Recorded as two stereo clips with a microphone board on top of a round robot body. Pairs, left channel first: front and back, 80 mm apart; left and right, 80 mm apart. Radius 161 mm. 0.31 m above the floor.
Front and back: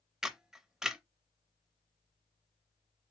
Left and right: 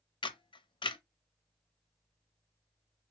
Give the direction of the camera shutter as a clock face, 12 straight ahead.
9 o'clock.